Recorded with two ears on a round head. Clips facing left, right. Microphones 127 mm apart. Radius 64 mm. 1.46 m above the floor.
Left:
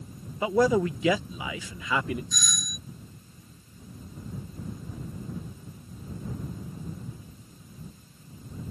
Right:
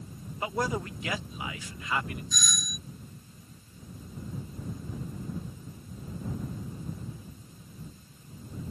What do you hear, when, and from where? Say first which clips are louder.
0.4 s a man speaking: left 9 dB; 70° left (ahead or behind)
2.3 s a doorbell: even; centre (ahead or behind)